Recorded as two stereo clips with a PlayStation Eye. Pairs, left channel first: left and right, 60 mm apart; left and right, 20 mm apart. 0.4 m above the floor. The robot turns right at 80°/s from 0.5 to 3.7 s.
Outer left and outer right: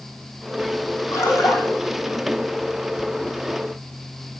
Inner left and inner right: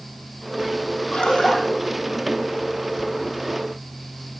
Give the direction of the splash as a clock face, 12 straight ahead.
9 o'clock.